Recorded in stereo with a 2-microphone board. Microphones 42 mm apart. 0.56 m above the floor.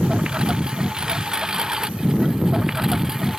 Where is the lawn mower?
20° right (ahead or behind); by 3.4 s 10° right (ahead or behind).